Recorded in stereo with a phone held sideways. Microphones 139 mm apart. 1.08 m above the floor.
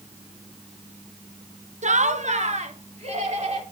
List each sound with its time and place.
1.8 s laughter: 55° right (ahead or behind), 0.7 m; by 3.6 s 50° right (ahead or behind), 3 m